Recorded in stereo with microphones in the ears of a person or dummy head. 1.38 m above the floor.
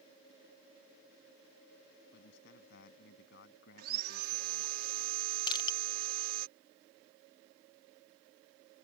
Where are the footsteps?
No footsteps in this recording.